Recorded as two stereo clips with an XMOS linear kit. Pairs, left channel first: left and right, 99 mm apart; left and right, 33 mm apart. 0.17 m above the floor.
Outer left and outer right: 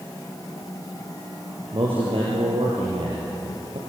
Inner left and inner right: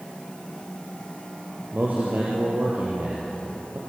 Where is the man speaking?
65° right (ahead or behind), 5 m; by 3.8 s 75° right (ahead or behind), 5.5 m.